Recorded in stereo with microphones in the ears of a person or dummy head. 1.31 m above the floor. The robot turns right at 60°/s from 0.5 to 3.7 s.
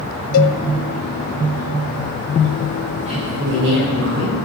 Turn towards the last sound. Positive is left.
turn(degrees=-115)